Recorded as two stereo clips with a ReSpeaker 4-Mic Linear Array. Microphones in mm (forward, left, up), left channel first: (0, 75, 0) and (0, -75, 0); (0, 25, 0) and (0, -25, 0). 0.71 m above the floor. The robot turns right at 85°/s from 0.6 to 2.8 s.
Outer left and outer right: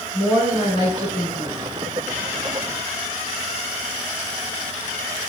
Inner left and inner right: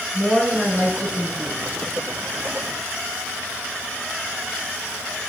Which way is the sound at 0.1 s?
10° left.